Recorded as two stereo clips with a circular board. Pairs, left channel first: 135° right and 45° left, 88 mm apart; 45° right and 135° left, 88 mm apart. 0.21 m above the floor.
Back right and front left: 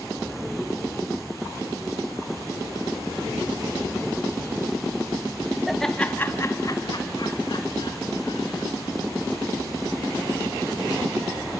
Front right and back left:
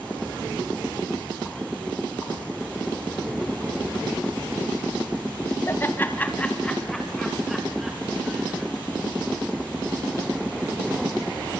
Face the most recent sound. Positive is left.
turn(degrees=-145)